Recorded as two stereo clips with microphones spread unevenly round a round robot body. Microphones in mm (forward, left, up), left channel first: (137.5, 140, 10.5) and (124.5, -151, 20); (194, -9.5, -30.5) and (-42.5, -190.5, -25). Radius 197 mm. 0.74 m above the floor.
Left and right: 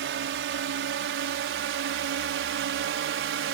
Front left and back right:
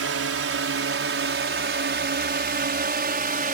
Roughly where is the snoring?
No snoring in this recording.